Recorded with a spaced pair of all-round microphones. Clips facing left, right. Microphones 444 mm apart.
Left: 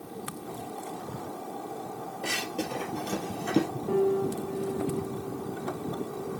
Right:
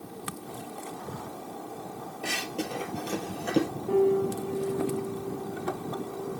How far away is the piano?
About 4 m.